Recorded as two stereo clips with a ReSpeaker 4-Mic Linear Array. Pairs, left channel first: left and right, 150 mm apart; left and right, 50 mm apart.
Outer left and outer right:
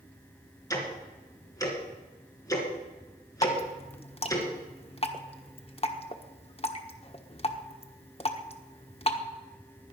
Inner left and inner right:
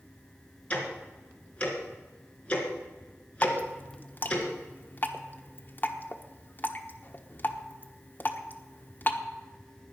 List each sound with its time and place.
0.7 s ticking: 20° left (ahead or behind), 3 m
3.4 s dripping: 40° left (ahead or behind), 1.2 m